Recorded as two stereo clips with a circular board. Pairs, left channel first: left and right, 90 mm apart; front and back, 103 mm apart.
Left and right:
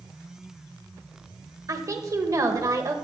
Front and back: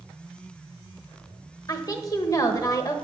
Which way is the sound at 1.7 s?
45° right.